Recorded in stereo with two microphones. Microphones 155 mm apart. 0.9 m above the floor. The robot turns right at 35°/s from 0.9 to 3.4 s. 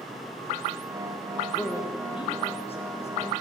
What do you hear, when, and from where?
1.6 s a man speaking: 15° left (ahead or behind), 1.1 m; by 3.3 s 45° left (ahead or behind), 1.1 m